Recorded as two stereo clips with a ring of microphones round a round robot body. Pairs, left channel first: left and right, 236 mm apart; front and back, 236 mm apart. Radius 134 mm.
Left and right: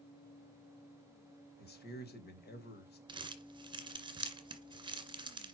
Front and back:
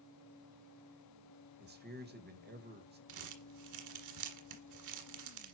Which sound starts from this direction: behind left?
A man speaking, at 1.6 s.